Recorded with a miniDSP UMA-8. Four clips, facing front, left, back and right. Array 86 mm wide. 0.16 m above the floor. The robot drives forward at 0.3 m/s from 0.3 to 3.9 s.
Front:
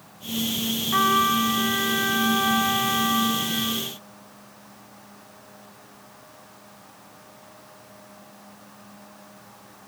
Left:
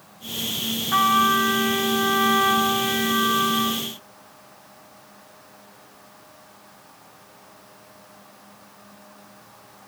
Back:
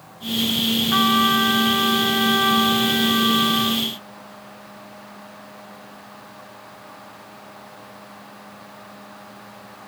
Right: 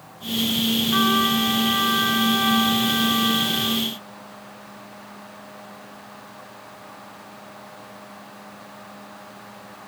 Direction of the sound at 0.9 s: 140° left.